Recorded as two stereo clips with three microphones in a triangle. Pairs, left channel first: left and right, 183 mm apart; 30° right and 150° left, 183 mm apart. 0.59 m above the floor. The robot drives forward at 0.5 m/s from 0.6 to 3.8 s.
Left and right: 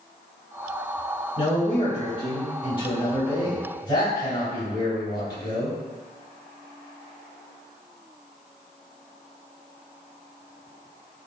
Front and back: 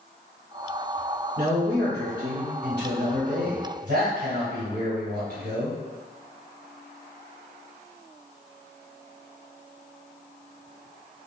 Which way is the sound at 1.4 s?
130° left.